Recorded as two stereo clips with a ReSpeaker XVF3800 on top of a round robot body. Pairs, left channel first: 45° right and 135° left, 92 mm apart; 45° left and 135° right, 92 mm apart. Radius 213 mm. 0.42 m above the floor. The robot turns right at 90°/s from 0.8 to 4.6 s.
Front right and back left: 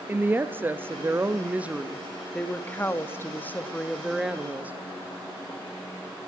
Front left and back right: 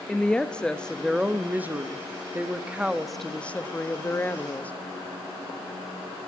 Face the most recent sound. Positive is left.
turn(degrees=95)